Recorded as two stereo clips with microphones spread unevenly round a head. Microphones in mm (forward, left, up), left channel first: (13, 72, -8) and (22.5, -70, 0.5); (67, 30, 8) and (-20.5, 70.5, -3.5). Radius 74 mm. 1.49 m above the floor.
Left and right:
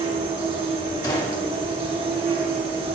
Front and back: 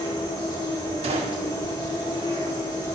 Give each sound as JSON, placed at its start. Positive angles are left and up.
{"t": 0.0, "sound": "an insect", "azimuth_deg": -55, "distance_m": 1.4}
{"t": 1.0, "sound": "a gunshot", "azimuth_deg": 160, "distance_m": 1.1}